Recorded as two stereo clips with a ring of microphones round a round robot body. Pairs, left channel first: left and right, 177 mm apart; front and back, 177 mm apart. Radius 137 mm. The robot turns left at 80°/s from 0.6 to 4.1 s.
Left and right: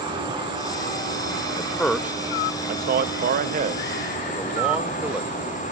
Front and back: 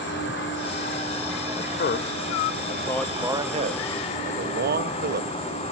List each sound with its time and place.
0.0 s an insect: 30° right, 9.5 m; by 5.7 s 50° left, 9.5 m
1.6 s a man speaking: 30° left, 0.9 m; by 5.6 s 170° right, 0.9 m